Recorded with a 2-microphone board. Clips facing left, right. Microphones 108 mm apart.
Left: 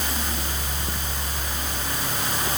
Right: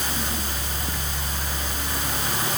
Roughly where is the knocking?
No knocking in this recording.